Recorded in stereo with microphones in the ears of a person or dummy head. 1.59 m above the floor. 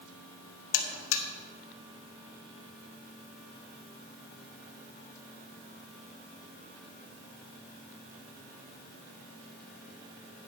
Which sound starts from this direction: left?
A buzzer, at 0.7 s.